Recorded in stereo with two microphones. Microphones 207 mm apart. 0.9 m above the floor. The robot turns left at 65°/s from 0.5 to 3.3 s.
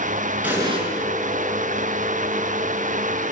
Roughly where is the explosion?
Centre.